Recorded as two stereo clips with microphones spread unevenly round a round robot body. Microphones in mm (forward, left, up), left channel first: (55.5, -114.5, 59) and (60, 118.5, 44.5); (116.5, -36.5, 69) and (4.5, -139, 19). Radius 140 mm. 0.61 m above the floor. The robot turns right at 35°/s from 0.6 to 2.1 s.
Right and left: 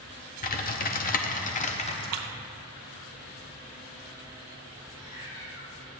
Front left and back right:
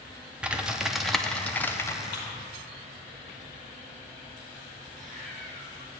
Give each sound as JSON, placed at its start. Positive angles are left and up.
{"t": 0.4, "sound": "typing on a keyboard", "azimuth_deg": -95, "distance_m": 0.7}
{"t": 2.0, "sound": "a splash", "azimuth_deg": 75, "distance_m": 0.7}
{"t": 4.9, "sound": "a cat meowing", "azimuth_deg": -105, "distance_m": 2.0}